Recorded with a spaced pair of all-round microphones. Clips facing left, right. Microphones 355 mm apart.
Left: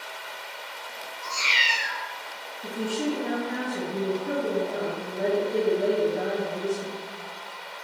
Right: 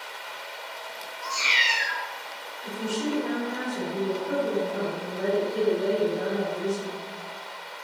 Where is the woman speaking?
80° left, 2.5 m.